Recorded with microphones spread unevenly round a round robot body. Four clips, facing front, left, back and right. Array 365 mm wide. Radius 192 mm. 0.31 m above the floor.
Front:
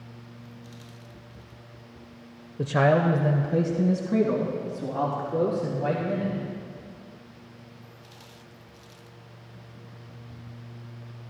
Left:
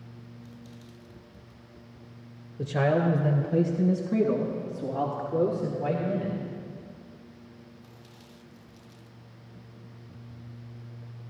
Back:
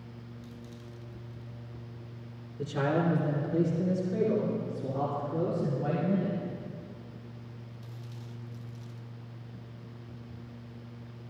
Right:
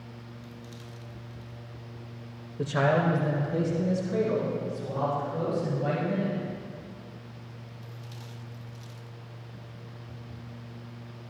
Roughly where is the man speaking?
Ahead.